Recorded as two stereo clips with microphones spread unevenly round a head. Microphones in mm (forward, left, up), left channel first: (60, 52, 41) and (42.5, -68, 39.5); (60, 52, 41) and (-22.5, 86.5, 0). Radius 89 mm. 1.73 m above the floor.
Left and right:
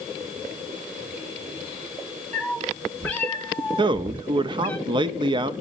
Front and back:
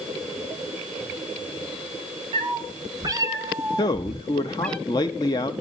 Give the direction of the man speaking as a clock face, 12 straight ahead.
2 o'clock.